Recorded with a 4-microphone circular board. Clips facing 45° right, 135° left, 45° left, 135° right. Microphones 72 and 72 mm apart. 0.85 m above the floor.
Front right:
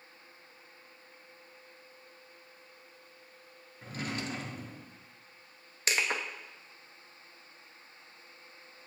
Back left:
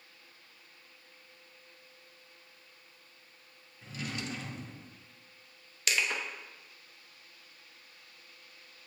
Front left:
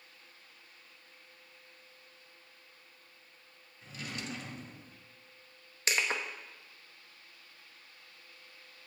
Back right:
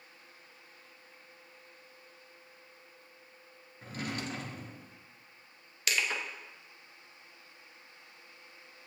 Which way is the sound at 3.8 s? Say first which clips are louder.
Front right 2 dB, back right 5 dB; 90° right.